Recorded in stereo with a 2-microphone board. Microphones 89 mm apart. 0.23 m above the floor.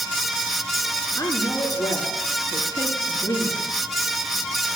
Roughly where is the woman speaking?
Left.